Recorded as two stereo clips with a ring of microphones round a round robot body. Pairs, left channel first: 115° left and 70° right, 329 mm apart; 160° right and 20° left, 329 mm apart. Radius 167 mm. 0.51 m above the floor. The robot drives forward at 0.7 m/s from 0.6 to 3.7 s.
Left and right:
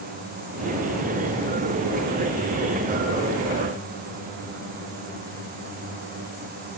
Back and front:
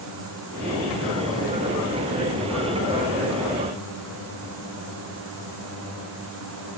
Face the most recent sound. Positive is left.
No sound to turn to.